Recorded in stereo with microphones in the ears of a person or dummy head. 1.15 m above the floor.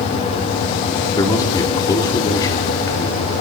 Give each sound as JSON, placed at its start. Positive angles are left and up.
{"t": 1.2, "sound": "a man speaking", "side_deg": 20, "distance_m": 3.0}